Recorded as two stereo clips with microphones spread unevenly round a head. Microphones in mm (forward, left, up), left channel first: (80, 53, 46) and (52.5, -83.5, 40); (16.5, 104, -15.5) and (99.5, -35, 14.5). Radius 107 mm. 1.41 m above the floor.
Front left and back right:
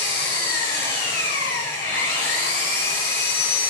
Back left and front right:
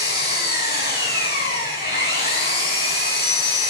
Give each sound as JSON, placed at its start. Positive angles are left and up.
{"t": 0.0, "sound": "an engine running", "azimuth_deg": 95, "distance_m": 4.5}